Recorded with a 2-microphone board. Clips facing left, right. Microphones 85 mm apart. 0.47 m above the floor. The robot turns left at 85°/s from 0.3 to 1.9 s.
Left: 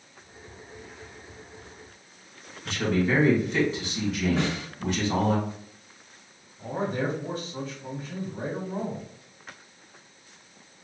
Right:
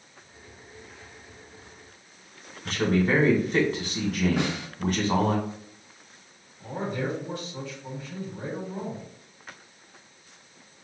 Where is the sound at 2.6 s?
50° right (ahead or behind), 1.3 m.